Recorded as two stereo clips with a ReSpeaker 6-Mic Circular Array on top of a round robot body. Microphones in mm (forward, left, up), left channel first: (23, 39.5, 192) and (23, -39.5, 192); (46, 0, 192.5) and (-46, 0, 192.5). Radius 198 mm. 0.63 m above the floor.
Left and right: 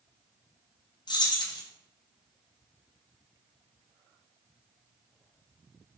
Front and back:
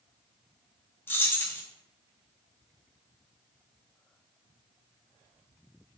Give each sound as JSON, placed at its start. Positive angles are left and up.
{"t": 1.1, "sound": "keys jangling", "azimuth_deg": 70, "distance_m": 0.7}